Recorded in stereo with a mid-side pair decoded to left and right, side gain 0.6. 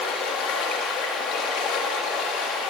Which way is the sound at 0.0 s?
65° left.